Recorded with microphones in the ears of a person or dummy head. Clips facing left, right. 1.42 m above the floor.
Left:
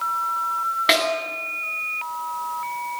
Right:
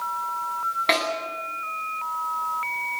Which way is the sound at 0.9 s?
5° left (ahead or behind).